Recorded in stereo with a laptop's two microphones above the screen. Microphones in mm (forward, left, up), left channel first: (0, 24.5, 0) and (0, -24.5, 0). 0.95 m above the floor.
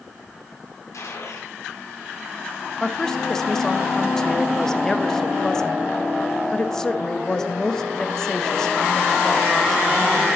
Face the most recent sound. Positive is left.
turn(degrees=10)  # may be behind; listen again after turning